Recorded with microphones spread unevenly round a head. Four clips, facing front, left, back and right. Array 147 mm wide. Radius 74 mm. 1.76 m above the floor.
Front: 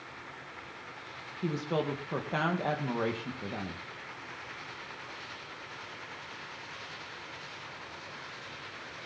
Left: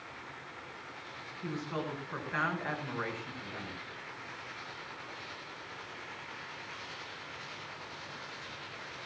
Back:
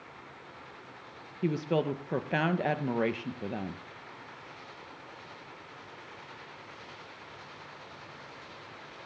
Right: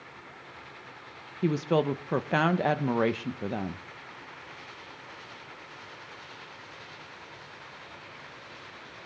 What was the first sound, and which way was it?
A woman speaking, 105° right.